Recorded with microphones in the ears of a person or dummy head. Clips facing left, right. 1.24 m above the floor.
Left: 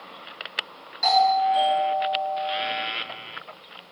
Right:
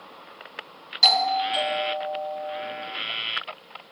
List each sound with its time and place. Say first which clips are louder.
1.0 s a doorbell: left 5 dB; 45° right (ahead or behind), 1.1 m